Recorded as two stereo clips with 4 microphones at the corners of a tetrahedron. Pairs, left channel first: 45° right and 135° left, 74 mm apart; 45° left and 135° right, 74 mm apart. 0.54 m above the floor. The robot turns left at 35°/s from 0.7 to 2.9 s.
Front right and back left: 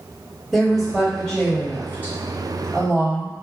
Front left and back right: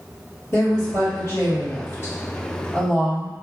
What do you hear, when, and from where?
0.5 s a woman speaking: 50° left, 1.7 m; by 3.4 s 25° right, 1.7 m